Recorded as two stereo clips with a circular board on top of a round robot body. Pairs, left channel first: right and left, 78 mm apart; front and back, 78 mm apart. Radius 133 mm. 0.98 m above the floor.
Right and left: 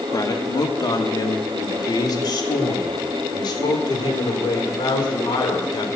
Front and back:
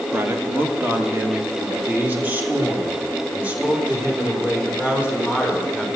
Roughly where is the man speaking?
Behind right.